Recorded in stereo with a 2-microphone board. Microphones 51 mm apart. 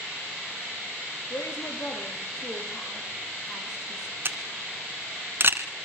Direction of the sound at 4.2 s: 45° right (ahead or behind).